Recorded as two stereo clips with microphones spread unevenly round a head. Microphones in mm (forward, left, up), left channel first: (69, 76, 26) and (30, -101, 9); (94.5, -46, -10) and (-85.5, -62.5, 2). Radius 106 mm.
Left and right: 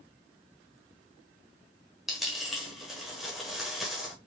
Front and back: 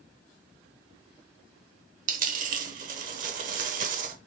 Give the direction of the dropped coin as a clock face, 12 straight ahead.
7 o'clock.